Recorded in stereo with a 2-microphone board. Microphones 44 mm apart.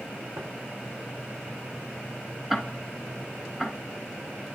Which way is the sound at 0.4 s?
75° right (ahead or behind).